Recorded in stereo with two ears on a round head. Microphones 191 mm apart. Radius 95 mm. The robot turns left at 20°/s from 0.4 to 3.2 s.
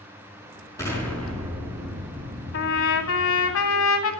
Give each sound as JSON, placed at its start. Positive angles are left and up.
{"t": 0.8, "sound": "an explosion", "azimuth_deg": 15, "distance_m": 5.0}
{"t": 2.5, "sound": "a trumpet", "side_deg": 60, "distance_m": 2.5}